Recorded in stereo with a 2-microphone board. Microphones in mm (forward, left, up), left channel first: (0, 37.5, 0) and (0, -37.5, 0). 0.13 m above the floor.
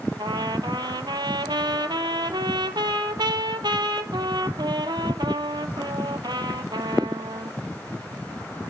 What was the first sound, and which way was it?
A trumpet, 75° right (ahead or behind).